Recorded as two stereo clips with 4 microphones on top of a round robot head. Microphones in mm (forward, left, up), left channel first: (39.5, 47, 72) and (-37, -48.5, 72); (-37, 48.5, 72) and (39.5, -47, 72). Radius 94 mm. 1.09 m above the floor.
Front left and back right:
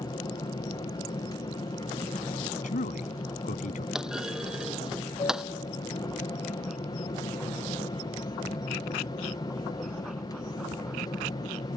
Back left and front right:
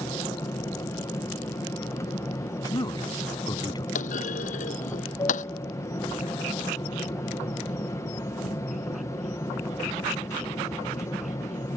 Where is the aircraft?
80° left.